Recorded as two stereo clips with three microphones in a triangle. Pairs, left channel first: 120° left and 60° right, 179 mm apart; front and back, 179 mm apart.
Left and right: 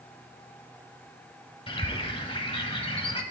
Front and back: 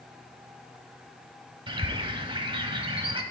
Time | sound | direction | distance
1.7 | a bird | 145° left | 0.7 m